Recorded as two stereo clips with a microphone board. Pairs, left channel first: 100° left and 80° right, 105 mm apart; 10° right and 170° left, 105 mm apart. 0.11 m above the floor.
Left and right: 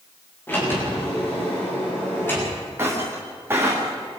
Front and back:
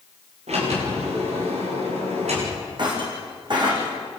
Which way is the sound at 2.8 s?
145° right.